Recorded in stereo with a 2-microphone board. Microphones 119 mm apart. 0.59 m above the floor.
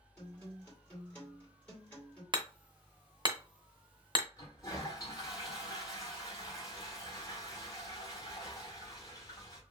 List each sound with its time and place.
0.2 s a guitar: 15° left (ahead or behind), 2 m
2.3 s hammering: 40° right (ahead or behind), 0.6 m
4.4 s a toilet flushing: 30° left (ahead or behind), 1.8 m